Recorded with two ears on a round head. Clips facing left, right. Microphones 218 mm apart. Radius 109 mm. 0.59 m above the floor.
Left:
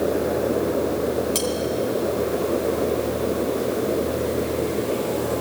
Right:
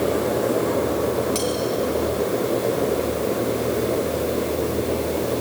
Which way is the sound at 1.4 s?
25° left (ahead or behind).